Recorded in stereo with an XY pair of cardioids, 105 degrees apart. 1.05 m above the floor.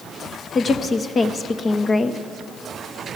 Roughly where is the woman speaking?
Ahead left.